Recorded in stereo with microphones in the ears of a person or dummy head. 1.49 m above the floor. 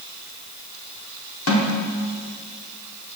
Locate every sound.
1.5 s a snare drum: 90° left, 4.5 m